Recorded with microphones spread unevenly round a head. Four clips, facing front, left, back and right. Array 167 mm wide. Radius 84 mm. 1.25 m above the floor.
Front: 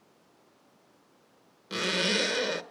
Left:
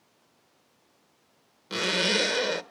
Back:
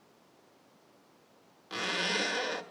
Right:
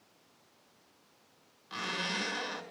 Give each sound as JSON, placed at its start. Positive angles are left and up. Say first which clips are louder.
{"t": 1.7, "sound": "a zipper", "louder": "left 10 dB, front 4 dB", "azimuth_deg": 70, "distance_m": 1.7}